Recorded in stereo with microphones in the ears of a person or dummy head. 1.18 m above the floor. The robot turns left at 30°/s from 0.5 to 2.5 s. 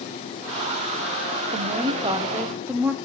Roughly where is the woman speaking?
Right.